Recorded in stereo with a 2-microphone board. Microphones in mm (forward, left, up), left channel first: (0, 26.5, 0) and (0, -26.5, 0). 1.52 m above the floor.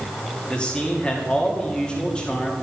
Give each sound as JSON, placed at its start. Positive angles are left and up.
{"t": 0.5, "sound": "a man speaking", "side_deg": 20, "distance_m": 1.9}